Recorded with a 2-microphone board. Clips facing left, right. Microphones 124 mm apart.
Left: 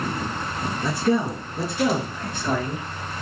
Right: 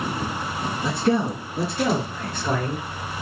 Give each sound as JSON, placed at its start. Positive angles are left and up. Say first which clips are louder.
{"t": 0.8, "sound": "a man speaking", "louder": "even", "side_deg": -20, "distance_m": 1.3}